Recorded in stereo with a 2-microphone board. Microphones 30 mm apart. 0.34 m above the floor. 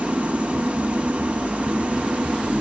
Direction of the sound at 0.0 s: 50° right (ahead or behind).